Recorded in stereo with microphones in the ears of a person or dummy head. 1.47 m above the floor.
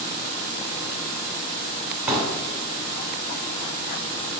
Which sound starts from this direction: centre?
A pop, at 2.1 s.